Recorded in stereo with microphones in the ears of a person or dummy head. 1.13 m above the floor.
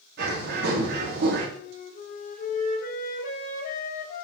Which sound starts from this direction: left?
A flute, at 1.6 s.